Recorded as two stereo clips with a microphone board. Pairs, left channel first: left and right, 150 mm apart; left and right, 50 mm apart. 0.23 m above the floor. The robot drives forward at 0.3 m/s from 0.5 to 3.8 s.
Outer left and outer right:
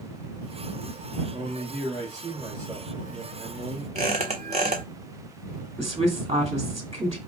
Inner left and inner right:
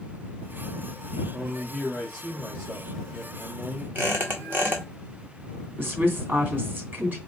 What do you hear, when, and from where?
1.3 s a man speaking: 25° right (ahead or behind), 2.5 m; by 3.9 s 20° right (ahead or behind), 3.5 m
4.0 s a squeak: 45° right (ahead or behind), 1.4 m
5.8 s a woman speaking: 40° right (ahead or behind), 2 m